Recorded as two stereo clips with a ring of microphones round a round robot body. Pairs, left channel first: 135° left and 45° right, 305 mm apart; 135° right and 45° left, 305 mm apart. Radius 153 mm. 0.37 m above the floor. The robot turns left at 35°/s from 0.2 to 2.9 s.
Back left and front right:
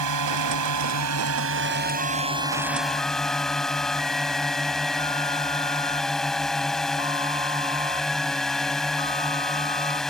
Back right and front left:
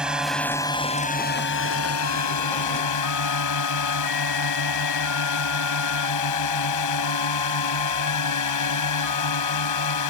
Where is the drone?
40° right; by 10.1 s 135° right.